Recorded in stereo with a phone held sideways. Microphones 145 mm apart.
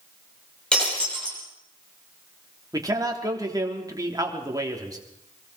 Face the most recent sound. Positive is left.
turn(degrees=-25)  # may be behind; listen again after turning